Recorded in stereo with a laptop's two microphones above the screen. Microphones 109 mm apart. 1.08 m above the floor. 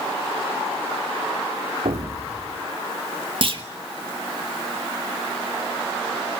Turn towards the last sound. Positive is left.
turn(degrees=-55)  # may be behind; listen again after turning